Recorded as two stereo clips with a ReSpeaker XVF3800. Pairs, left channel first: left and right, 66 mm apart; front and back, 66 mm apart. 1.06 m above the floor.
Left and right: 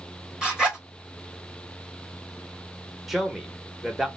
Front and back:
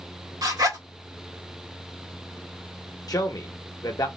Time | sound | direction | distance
0.4 | a zipper | 165° right | 1.5 m
3.1 | a man speaking | straight ahead | 1.0 m